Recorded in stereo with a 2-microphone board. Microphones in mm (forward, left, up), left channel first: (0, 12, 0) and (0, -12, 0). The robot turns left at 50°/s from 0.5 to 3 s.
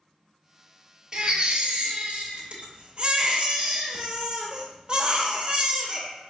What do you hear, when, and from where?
1.1 s a baby crying: 35° right, 0.7 m; by 6.1 s 130° right, 0.7 m